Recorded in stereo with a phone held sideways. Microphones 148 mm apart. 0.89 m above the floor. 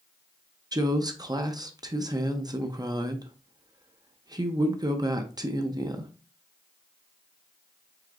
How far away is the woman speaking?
About 0.6 m.